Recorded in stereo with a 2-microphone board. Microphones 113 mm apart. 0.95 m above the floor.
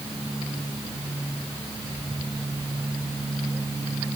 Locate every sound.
Only background noise.